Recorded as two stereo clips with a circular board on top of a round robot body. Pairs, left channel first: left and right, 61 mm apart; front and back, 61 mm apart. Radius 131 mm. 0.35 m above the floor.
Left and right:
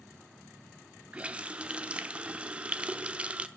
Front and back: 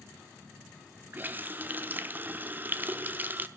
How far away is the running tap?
About 0.6 m.